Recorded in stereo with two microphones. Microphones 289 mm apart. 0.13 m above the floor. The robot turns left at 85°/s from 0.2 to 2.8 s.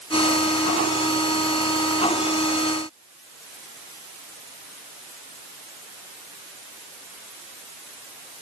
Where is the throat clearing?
I don't hear throat clearing.